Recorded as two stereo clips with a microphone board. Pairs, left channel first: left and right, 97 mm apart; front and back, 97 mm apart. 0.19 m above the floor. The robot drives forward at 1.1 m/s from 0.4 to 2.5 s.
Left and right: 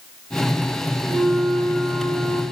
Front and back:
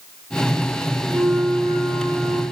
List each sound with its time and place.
1.1 s a flute: 115° right, 3 m; by 2.4 s 140° right, 3.5 m